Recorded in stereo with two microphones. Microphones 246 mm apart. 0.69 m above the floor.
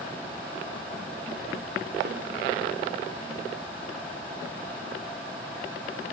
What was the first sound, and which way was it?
A snare drum, 45° right (ahead or behind).